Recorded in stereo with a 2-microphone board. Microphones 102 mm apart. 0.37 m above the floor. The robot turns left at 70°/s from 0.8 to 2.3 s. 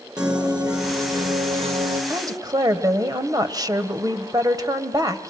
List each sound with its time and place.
0.2 s a piano: 10° right, 4.5 m; by 2.0 s 95° right, 4.5 m
2.1 s a woman speaking: 30° right (ahead or behind), 1.6 m; by 5.3 s 40° right (ahead or behind), 1.6 m